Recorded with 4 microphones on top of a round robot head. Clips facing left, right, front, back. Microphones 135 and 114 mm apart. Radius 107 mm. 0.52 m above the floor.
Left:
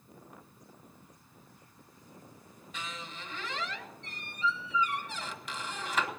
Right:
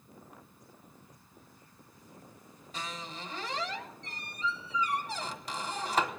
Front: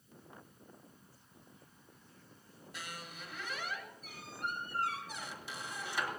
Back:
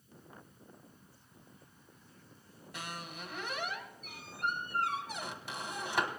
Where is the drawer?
I don't hear a drawer.